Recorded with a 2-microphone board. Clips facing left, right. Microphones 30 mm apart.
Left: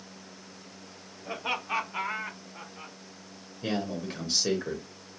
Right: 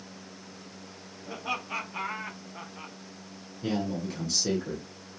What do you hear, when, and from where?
1.2 s laughter: 45° left (ahead or behind), 0.7 m; by 3.0 s 20° right (ahead or behind), 0.9 m
3.6 s a man speaking: 20° left (ahead or behind), 0.8 m